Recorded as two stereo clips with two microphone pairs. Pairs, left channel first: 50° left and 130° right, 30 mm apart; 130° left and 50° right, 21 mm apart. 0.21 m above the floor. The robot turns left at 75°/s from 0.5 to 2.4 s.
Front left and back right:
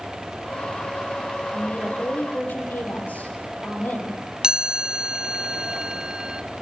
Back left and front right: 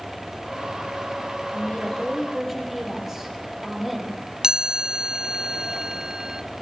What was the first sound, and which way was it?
A woman speaking, 105° left.